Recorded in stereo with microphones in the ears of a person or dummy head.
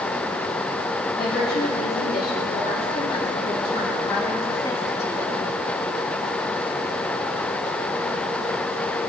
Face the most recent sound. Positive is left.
turn(degrees=15)  # may be behind; listen again after turning